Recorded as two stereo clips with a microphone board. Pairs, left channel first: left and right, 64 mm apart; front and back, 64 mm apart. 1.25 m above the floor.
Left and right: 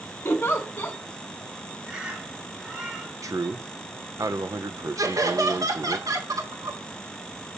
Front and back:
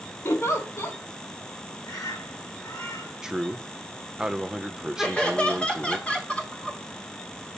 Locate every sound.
0.2 s a giggle: 35° left, 2.0 m
1.8 s a bird: 20° right, 2.5 m
3.2 s a man speaking: 100° right, 1.0 m
5.0 s laughter: 75° right, 3 m